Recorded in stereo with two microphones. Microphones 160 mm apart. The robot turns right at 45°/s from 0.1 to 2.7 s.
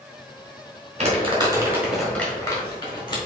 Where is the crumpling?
45° right (ahead or behind), 1.6 m; by 3.2 s 30° left (ahead or behind), 1.6 m.